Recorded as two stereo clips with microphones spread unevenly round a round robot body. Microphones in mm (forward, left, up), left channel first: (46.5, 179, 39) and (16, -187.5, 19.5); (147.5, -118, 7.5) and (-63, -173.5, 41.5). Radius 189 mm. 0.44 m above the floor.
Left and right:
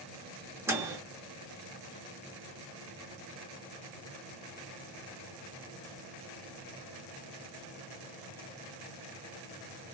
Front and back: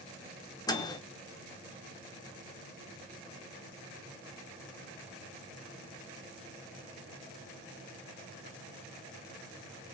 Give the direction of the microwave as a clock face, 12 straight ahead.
1 o'clock.